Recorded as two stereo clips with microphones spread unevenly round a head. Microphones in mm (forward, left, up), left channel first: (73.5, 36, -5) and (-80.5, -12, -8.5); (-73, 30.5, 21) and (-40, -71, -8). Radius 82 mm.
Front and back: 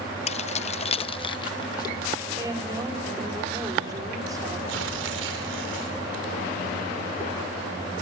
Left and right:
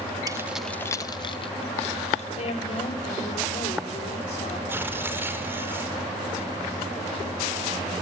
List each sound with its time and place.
0.3 s keys jangling: straight ahead, 0.8 m; by 2.3 s 85° left, 2 m
2.4 s a woman speaking: 130° left, 6 m
4.7 s tearing paper: 145° right, 5.5 m